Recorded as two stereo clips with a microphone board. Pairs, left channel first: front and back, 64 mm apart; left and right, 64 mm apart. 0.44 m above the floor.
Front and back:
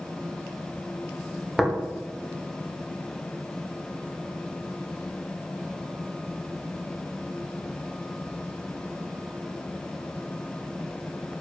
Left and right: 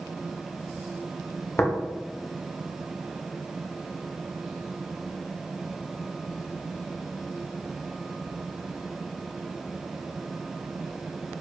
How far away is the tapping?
About 0.7 m.